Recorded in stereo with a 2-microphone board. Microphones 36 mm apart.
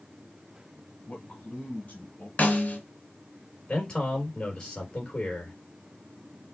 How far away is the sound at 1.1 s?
About 1.7 m.